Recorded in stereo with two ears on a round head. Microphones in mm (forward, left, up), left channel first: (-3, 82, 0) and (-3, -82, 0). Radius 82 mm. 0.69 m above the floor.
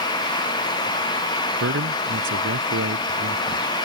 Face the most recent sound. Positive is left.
turn(degrees=-85)